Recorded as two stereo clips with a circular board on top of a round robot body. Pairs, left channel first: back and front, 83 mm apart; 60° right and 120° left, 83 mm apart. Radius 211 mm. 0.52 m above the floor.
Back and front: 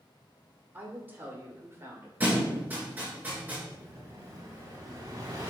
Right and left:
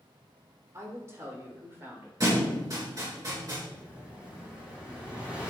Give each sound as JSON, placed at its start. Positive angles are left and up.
{"t": 0.7, "sound": "a woman speaking", "azimuth_deg": 70, "distance_m": 3.0}
{"t": 2.2, "sound": "a thud", "azimuth_deg": 70, "distance_m": 3.5}
{"t": 3.7, "sound": "an explosion", "azimuth_deg": 45, "distance_m": 3.0}